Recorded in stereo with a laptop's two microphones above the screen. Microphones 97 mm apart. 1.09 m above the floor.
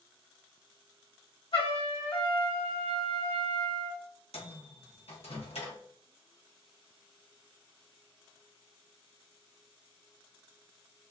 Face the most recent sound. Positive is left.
turn(degrees=85)